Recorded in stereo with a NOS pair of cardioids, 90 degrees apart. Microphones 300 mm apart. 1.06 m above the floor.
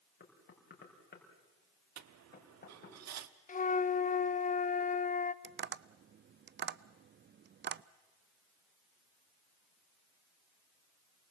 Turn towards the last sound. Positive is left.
turn(degrees=-40)